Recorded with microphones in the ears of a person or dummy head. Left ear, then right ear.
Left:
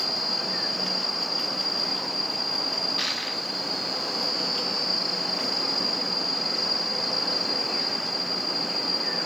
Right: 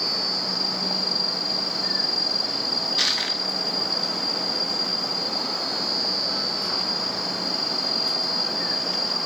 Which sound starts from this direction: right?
Crushing, at 3.0 s.